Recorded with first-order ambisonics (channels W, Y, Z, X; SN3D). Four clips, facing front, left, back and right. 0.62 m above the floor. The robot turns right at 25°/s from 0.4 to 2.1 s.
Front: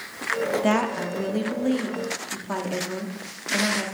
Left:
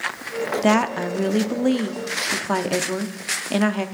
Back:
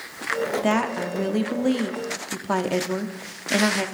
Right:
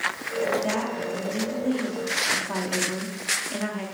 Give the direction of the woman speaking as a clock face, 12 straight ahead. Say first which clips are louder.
Left 8 dB, back 1 dB; 9 o'clock.